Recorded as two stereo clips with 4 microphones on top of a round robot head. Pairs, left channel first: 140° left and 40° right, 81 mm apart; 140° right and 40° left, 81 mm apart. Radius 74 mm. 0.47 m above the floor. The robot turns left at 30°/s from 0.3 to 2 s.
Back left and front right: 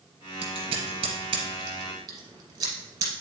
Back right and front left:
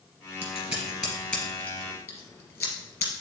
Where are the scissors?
35° right, 1.9 m; by 3.1 s 85° right, 1.9 m.